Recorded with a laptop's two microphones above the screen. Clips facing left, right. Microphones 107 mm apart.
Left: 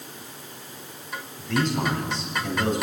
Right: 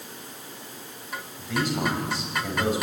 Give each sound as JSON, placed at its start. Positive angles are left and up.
{"t": 1.4, "sound": "a man speaking", "side_deg": -10, "distance_m": 5.5}